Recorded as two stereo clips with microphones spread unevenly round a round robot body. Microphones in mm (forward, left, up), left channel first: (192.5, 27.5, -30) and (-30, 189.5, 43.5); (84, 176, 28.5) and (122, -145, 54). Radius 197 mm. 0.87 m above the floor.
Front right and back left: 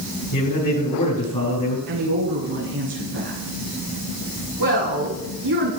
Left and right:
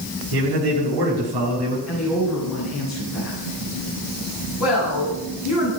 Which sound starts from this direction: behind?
A woman speaking, at 1.9 s.